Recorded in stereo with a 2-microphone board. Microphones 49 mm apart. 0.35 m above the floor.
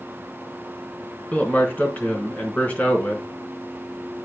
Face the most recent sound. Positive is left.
turn(degrees=30)  # may be behind; listen again after turning